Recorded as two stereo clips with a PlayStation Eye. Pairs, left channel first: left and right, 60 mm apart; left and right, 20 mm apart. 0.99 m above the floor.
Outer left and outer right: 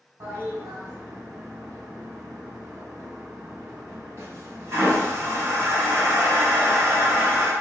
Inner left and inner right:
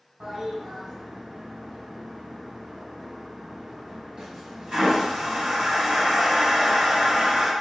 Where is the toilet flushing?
45° right (ahead or behind), 2 m.